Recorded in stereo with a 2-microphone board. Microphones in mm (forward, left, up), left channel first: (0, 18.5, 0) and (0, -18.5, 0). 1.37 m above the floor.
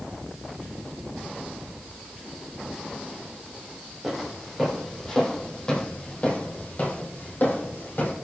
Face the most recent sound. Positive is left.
turn(degrees=55)  # may be behind; listen again after turning